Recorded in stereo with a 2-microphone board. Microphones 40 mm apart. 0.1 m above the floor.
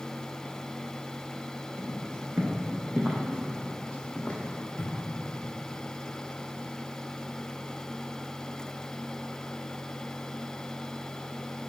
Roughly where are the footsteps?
Right.